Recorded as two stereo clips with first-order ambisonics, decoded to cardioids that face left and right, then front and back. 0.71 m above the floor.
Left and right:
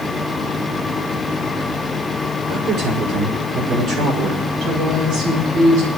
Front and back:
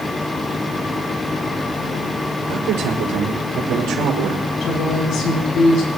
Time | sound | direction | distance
2.5 | a man speaking | 145° right | 7.5 m
4.6 | a woman speaking | 45° right | 7 m